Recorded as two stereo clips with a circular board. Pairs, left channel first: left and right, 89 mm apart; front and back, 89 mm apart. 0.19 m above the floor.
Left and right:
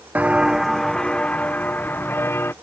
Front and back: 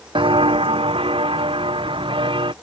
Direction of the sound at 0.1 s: 160° right.